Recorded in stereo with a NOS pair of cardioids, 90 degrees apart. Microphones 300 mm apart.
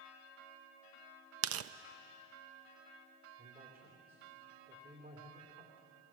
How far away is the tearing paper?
About 0.6 m.